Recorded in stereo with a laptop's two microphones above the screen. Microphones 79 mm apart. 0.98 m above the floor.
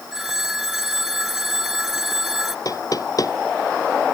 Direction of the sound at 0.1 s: 5° right (ahead or behind).